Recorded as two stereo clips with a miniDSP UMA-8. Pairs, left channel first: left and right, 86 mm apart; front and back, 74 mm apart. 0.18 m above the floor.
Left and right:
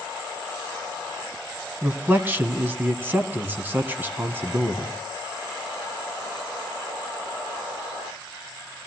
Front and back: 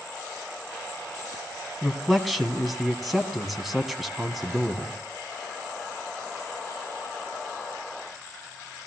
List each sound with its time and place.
1.8 s a man speaking: 90° right, 1.4 m